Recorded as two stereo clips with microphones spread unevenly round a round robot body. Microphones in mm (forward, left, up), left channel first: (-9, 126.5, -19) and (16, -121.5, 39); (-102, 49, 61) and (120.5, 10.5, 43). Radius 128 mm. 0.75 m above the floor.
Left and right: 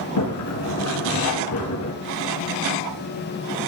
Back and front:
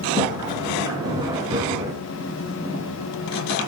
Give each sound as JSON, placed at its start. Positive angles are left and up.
{"t": 0.2, "sound": "a sliding door", "azimuth_deg": 65, "distance_m": 3.0}